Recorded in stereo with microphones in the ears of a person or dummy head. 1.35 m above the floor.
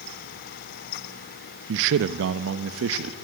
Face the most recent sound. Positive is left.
turn(degrees=-80)